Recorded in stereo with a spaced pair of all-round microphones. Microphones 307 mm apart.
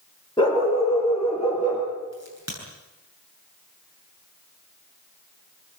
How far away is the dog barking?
About 7.5 m.